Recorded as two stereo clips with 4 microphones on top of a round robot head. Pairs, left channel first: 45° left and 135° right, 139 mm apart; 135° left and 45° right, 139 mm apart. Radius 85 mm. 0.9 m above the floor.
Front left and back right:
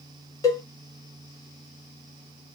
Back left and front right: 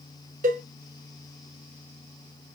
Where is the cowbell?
20° right, 1.3 m.